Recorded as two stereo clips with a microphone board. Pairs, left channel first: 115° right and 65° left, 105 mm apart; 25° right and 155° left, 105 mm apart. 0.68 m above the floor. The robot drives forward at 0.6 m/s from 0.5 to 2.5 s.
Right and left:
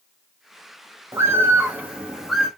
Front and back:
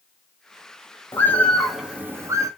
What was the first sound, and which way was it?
A bird, 25° left.